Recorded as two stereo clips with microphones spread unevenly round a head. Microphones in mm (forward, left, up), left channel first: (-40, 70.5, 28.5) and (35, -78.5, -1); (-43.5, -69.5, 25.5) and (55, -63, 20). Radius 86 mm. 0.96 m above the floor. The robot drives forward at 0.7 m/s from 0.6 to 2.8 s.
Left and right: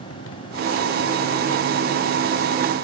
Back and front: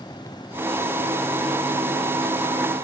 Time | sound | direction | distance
0.0 | a motorcycle | 110° left | ?